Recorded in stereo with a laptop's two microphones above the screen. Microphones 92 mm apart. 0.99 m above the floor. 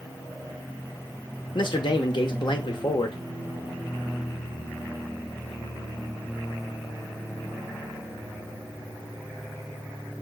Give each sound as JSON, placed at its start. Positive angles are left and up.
{"t": 1.6, "sound": "a man speaking", "side_deg": 60, "distance_m": 0.7}